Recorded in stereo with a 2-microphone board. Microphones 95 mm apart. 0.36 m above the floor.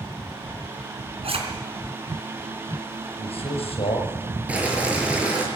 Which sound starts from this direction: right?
A zipper, at 1.2 s.